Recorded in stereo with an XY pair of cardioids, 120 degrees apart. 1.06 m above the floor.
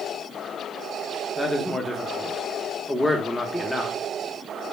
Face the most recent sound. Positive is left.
turn(degrees=10)